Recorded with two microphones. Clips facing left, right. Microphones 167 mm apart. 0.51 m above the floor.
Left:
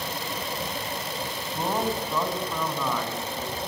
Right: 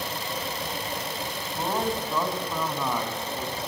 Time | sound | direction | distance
1.5 | a man speaking | 10° left (ahead or behind) | 3.5 m